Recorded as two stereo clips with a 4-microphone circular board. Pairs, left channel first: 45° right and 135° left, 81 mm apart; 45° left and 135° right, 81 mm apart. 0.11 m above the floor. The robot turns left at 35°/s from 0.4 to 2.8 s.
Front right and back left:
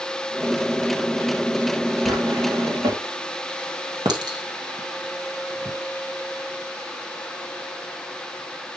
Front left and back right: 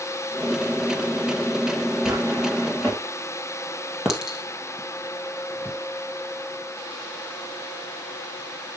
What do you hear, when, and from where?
2.0 s a drawer: 175° left, 4 m; by 3.0 s 150° left, 4 m
4.0 s a clink: 145° left, 2 m